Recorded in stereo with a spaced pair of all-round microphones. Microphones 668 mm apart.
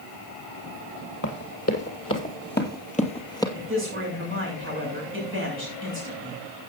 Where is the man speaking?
20° right (ahead or behind), 7 m.